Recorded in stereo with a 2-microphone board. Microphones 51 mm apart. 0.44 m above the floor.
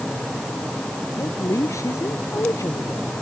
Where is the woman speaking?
85° left.